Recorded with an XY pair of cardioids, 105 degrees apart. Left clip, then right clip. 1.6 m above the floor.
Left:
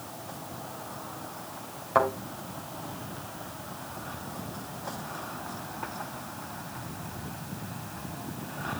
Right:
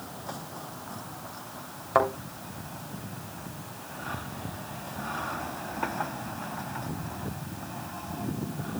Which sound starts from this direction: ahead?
A thud, at 1.9 s.